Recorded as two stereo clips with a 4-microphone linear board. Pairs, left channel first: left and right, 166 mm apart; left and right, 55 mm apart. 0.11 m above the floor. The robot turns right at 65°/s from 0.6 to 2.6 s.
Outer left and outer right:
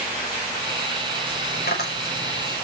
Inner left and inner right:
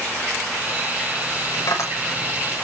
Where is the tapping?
65° left (ahead or behind), 7 m; by 2.5 s 50° left (ahead or behind), 7 m.